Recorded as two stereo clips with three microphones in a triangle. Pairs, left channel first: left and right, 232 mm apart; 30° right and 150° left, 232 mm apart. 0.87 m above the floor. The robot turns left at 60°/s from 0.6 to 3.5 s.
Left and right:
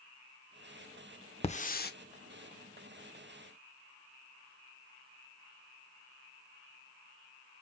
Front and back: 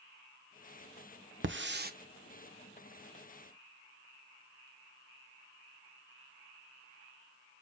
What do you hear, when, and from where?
1.4 s a hiss: 145° left, 0.7 m; by 1.9 s 115° left, 0.7 m